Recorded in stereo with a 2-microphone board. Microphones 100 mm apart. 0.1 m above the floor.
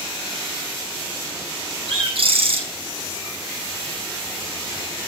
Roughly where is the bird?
Right.